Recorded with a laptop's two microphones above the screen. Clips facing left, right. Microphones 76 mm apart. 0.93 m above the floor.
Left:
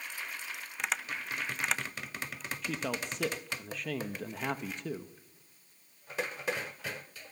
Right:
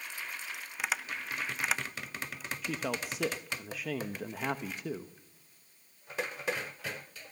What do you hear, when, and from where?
0.8 s tapping: 5° right (ahead or behind), 0.7 m
2.6 s a man speaking: 5° right (ahead or behind), 1.0 m